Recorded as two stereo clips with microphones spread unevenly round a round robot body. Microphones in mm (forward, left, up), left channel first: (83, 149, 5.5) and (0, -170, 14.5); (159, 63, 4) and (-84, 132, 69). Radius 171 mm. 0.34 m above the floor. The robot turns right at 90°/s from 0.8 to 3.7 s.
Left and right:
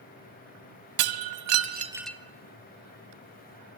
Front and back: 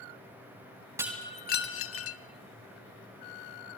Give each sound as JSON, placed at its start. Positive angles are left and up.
{"t": 1.0, "sound": "breaking glass", "azimuth_deg": -110, "distance_m": 1.6}